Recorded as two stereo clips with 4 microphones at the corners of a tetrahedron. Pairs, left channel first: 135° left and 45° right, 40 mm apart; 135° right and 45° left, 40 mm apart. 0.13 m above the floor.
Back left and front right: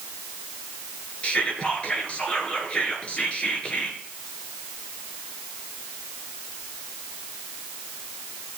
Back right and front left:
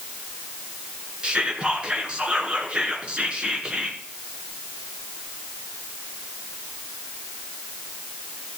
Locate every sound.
1.2 s whispering: 95° left, 1.5 m